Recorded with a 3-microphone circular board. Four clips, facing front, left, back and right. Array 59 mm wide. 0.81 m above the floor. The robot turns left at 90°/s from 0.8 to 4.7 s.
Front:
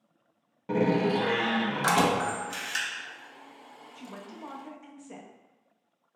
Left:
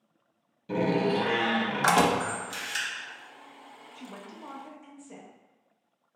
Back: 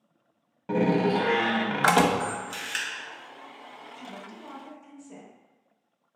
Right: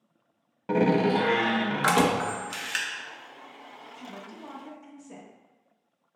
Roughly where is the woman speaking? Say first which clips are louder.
Even, front 1 dB; ahead left.